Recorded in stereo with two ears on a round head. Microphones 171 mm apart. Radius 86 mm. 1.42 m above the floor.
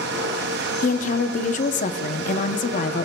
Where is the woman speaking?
40° left (ahead or behind), 0.7 m.